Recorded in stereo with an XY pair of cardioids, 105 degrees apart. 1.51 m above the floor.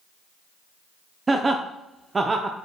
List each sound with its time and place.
1.3 s laughter: 25° right, 0.6 m